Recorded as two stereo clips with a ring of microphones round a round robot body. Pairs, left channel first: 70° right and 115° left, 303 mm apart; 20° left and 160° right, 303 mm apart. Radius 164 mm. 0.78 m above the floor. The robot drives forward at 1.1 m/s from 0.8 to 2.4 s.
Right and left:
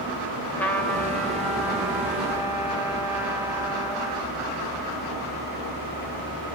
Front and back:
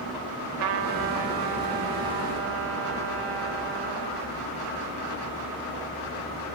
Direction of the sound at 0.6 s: 150° right.